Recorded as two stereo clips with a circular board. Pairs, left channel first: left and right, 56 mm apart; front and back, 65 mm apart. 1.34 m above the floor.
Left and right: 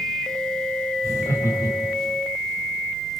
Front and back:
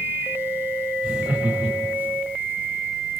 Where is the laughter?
110° left, 7 m.